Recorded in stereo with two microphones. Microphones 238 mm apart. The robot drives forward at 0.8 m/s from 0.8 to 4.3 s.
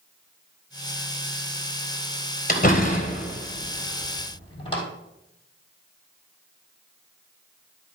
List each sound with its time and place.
2.5 s a door slam: 35° left (ahead or behind), 1.7 m; by 4.8 s 20° left (ahead or behind), 3 m